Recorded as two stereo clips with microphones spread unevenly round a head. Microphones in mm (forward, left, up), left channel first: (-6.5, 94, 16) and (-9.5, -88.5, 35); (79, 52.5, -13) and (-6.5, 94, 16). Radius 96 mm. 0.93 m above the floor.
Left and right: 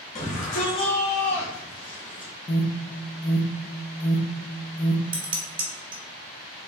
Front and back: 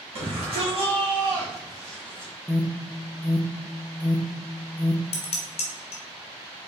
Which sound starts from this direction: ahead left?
An alarm, at 2.5 s.